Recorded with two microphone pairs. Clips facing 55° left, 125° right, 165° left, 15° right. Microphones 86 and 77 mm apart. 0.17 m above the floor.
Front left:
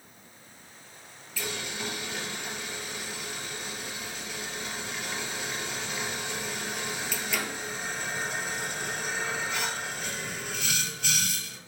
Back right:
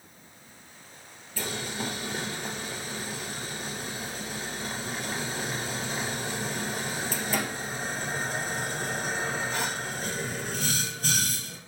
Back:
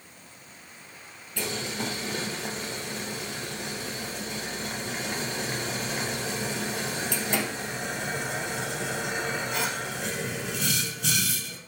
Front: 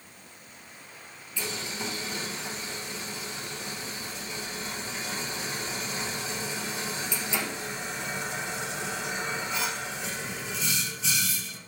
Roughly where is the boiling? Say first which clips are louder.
Back right 2 dB, back 3 dB; behind.